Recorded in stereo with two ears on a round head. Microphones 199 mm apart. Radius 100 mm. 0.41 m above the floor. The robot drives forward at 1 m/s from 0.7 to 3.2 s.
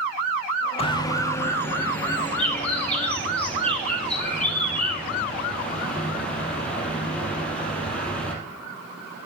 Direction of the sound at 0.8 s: 30° left (ahead or behind).